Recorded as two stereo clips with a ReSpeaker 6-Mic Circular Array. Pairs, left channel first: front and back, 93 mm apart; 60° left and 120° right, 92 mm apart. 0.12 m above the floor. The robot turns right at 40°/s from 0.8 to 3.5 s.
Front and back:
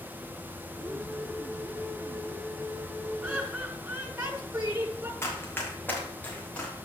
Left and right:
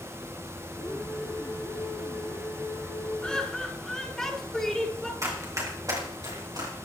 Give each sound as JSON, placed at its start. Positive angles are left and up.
{"t": 3.2, "sound": "laughter", "azimuth_deg": 125, "distance_m": 1.5}
{"t": 5.2, "sound": "running footsteps", "azimuth_deg": -65, "distance_m": 4.0}